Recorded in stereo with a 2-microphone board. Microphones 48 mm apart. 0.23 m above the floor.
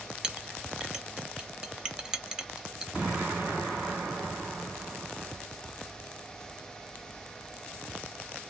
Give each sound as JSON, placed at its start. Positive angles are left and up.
{"t": 0.2, "sound": "a clink", "side_deg": -15, "distance_m": 0.6}
{"t": 2.9, "sound": "an explosion", "side_deg": -20, "distance_m": 2.0}